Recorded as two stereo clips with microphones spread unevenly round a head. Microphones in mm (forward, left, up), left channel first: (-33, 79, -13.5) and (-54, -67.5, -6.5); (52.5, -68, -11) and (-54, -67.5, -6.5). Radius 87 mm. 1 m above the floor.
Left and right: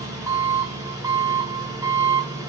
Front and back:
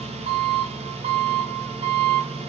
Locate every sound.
0.0 s an engine running: 165° right, 4.5 m